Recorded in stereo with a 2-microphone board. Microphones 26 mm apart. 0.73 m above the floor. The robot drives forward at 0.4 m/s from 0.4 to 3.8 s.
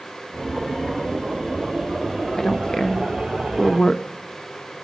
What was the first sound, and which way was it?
A woman speaking, 20° left (ahead or behind).